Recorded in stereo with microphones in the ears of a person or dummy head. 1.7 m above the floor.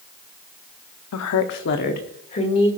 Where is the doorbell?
No doorbell in this recording.